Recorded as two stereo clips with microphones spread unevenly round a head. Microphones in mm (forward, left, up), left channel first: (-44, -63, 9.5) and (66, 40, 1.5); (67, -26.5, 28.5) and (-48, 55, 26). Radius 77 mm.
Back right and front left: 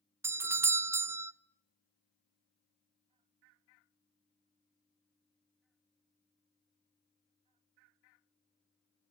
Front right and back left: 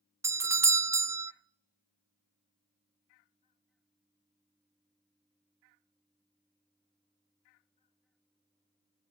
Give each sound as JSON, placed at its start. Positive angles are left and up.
{"t": 0.2, "sound": "a doorbell", "azimuth_deg": 95, "distance_m": 0.6}